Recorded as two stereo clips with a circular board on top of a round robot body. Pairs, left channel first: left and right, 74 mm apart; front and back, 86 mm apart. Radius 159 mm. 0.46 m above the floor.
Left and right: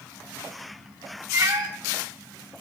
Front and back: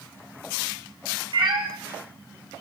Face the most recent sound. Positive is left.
turn(degrees=-150)